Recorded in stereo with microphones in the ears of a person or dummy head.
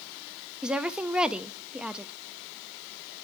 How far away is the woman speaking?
About 0.7 m.